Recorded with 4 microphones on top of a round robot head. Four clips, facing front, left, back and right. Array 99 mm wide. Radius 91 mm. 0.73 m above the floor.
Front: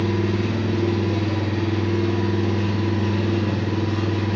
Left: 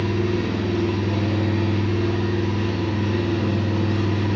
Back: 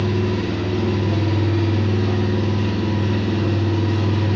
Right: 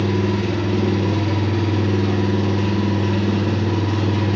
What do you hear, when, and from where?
0.0 s an engine running: 90° right, 0.7 m